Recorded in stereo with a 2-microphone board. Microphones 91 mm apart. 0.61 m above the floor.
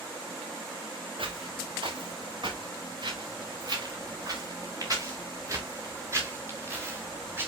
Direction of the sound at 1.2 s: 70° right (ahead or behind).